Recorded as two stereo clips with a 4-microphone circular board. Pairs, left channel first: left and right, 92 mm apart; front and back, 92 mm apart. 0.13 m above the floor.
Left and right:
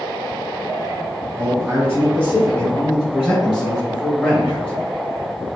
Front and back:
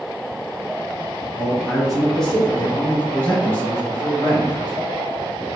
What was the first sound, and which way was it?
A man speaking, 110° right.